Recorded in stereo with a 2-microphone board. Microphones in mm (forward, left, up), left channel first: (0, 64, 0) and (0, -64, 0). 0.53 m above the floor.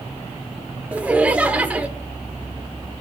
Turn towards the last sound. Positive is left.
turn(degrees=-10)  # may be behind; listen again after turning